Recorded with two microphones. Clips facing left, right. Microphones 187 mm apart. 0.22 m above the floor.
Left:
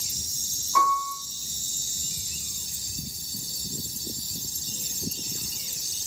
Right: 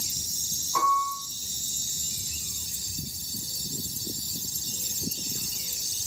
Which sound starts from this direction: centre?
A piano, at 0.8 s.